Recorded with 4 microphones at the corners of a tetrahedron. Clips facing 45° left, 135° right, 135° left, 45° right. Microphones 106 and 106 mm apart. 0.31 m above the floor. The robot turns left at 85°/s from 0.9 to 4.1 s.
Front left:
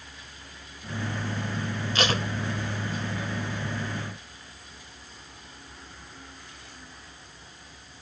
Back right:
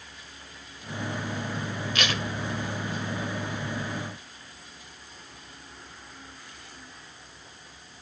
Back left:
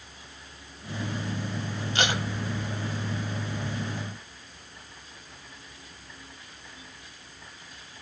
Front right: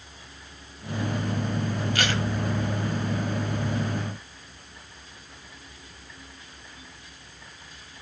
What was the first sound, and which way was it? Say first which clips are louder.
Tape being pulled: front left 4 dB, back left 2 dB; 85° left.